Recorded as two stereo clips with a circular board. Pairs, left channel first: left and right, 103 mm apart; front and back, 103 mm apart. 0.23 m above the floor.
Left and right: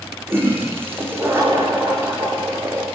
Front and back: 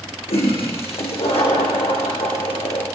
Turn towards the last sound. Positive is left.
turn(degrees=-20)